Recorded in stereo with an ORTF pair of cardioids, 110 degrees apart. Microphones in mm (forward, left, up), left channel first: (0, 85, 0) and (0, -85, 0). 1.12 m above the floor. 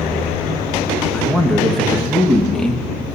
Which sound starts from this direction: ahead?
A man speaking, at 1.1 s.